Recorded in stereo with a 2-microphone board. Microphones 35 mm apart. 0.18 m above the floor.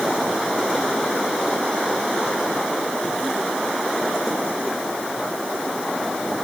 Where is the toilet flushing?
No toilet flushing in this recording.